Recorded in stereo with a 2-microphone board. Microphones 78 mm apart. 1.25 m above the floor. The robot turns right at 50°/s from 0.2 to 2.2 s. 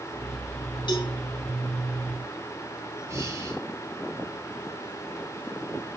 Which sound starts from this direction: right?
Breathing, at 3.1 s.